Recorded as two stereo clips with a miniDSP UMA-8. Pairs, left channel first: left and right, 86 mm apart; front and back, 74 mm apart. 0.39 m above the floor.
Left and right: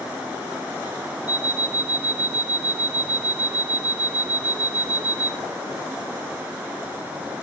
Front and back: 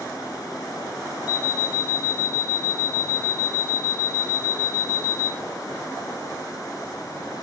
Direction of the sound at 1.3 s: 15° right.